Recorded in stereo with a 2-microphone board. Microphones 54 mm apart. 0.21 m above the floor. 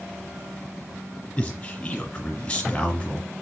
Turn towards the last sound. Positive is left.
turn(degrees=20)  # may be behind; listen again after turning